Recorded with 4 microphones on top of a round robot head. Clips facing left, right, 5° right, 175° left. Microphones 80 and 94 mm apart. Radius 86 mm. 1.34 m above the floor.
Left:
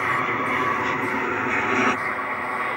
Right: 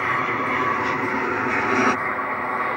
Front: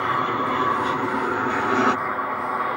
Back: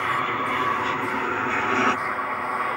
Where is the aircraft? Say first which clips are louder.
Right 1 dB, front 2 dB; 5° right; by 2.8 s 45° right.